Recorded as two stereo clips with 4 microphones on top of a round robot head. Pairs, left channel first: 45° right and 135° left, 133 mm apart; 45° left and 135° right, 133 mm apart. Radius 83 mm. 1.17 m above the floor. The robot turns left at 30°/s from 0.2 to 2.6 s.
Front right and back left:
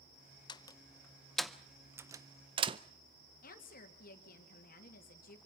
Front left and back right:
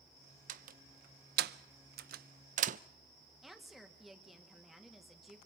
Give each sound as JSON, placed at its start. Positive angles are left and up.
{"t": 0.5, "sound": "a door slam", "azimuth_deg": -105, "distance_m": 0.6}
{"t": 3.4, "sound": "a woman speaking", "azimuth_deg": -45, "distance_m": 2.5}